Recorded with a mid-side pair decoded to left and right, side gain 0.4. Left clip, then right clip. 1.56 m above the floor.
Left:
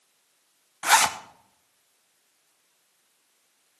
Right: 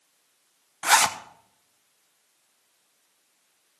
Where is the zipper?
5° right, 1.0 m.